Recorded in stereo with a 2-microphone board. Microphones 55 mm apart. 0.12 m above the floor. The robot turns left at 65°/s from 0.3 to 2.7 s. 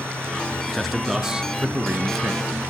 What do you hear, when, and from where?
0.7 s a man speaking: 5° left (ahead or behind), 1.2 m; by 2.6 s 25° right (ahead or behind), 1.2 m